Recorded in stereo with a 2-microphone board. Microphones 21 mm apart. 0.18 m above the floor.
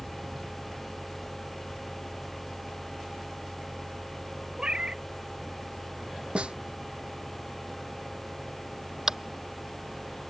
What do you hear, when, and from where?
4.6 s a cat meowing: 50° right (ahead or behind)
6.3 s a snare drum: 65° right (ahead or behind)
9.1 s tapping: 25° right (ahead or behind)